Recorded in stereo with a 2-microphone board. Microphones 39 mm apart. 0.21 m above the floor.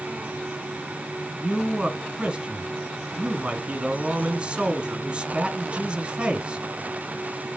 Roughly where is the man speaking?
Right.